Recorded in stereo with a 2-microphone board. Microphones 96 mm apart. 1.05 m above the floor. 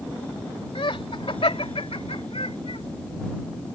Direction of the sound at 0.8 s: 65° left (ahead or behind).